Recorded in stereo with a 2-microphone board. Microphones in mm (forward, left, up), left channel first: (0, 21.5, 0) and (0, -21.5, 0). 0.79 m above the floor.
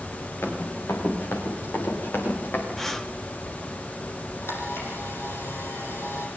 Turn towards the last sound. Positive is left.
turn(degrees=70)  # may be behind; listen again after turning